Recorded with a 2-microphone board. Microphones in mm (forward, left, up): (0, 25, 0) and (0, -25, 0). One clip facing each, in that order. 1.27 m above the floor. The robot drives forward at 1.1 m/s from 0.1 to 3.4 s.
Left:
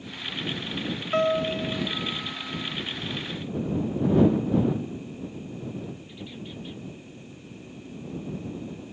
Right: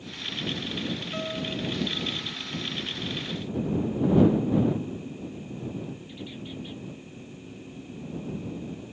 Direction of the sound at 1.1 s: 50° left (ahead or behind).